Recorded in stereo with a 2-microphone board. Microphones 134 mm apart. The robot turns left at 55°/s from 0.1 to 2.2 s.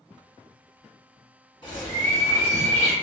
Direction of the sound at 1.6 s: 70° left.